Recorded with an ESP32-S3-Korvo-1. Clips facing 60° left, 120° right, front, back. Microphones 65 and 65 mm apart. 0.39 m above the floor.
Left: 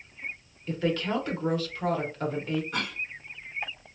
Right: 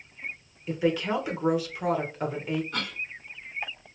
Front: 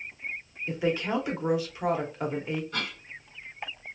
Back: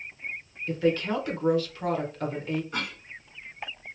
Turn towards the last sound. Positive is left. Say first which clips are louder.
# left 1 dB, back 1 dB
turn(degrees=130)